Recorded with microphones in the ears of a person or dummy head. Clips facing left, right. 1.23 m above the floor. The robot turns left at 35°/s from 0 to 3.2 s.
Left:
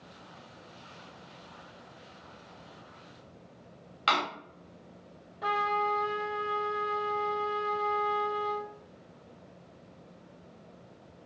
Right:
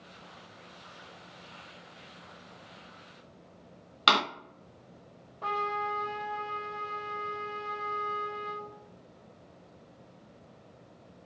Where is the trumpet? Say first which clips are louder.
Left 3 dB; 15° left (ahead or behind), 1.4 m.